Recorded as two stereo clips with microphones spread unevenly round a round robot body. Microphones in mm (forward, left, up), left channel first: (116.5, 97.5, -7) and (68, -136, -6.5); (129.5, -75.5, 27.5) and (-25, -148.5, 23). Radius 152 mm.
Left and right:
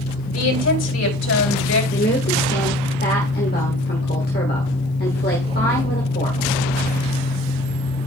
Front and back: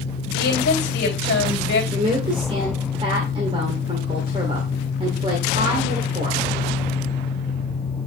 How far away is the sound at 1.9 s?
About 1.6 m.